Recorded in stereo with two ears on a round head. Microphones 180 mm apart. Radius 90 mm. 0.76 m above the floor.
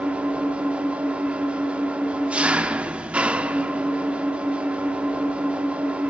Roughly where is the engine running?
Centre.